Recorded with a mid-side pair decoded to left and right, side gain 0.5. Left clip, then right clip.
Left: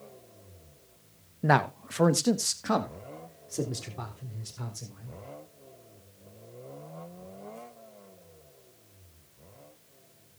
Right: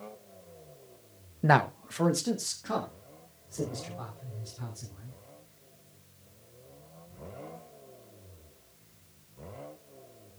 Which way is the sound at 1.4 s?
10° right.